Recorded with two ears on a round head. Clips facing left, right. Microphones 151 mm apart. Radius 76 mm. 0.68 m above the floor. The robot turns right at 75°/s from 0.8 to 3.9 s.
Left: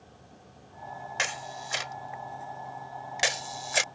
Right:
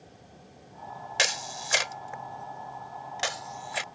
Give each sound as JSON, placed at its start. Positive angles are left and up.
{"t": 1.2, "sound": "a camera shutter", "side_deg": -40}